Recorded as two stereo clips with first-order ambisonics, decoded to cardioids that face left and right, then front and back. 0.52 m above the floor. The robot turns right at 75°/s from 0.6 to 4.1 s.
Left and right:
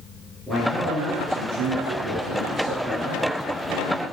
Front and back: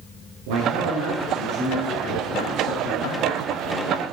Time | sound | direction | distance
0.5 | a man speaking | 175° right | 7.5 m